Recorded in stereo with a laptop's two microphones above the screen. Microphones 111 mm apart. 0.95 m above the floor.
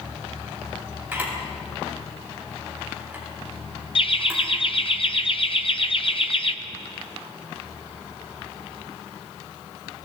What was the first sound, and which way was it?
A camera shutter, 20° right (ahead or behind).